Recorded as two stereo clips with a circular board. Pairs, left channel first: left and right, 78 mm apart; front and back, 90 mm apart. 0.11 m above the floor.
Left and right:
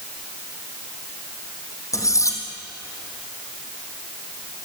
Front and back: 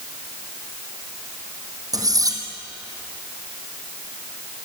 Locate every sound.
1.9 s cutlery clinking: 135° left, 2.5 m